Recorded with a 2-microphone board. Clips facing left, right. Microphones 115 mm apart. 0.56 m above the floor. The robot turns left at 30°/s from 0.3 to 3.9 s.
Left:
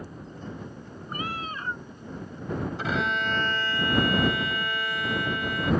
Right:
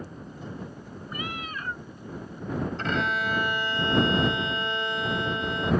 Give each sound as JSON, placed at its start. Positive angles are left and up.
{"t": 1.1, "sound": "a cat meowing", "side_deg": 45}
{"t": 2.8, "sound": "a violin", "azimuth_deg": 10}